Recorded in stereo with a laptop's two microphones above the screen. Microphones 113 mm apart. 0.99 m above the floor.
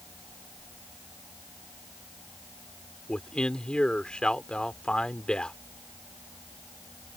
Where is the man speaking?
10° left (ahead or behind).